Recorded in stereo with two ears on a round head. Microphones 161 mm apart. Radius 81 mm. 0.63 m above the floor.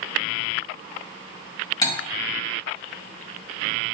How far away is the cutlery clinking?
About 1.7 m.